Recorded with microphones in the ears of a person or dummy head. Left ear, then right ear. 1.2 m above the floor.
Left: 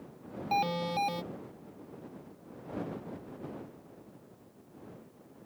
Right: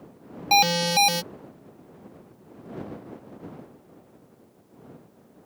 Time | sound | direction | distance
0.5 | an alarm | 65° right (ahead or behind) | ?